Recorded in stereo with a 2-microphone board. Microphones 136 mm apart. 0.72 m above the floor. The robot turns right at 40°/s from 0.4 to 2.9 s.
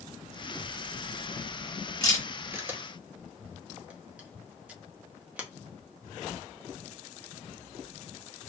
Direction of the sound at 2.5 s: 15° right (ahead or behind).